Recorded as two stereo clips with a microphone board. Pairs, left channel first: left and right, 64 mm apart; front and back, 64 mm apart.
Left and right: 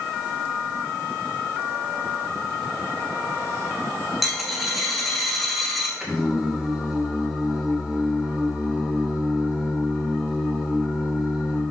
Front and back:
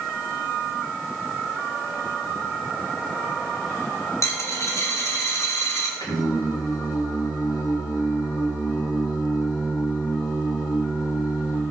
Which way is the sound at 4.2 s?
Straight ahead.